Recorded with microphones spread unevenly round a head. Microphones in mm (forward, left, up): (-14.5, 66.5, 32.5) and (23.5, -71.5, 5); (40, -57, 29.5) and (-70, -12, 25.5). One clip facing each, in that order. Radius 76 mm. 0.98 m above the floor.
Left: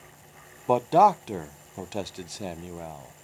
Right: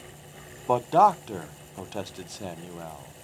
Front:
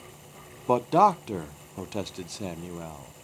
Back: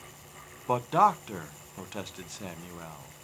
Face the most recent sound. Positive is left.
turn(degrees=20)